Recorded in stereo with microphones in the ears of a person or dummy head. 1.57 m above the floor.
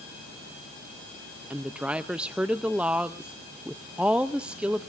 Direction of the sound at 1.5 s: 10° right (ahead or behind).